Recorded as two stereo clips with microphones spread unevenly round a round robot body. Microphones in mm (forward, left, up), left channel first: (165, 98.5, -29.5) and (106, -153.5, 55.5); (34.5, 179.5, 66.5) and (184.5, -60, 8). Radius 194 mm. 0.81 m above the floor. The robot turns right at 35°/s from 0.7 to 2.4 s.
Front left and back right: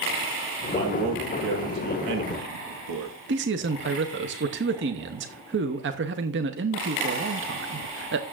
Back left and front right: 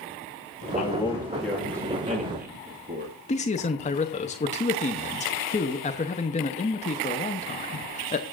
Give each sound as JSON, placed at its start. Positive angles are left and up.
{"t": 0.7, "sound": "a man speaking", "azimuth_deg": -165, "distance_m": 1.6}
{"t": 3.3, "sound": "a man speaking", "azimuth_deg": -165, "distance_m": 0.7}